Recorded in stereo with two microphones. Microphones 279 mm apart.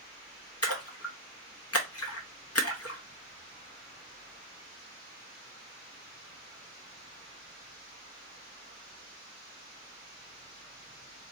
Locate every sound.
0.6 s a splash: 60° left (ahead or behind), 0.7 m